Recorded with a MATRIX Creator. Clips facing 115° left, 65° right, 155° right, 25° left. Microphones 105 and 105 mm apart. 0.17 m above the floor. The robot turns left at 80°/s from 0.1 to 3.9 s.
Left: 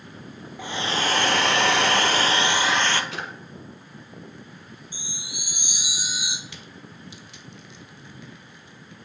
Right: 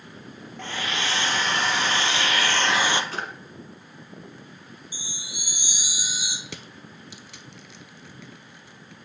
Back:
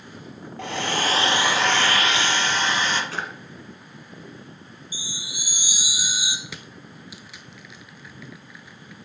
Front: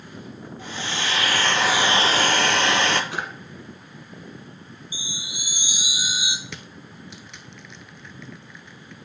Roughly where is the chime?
Left.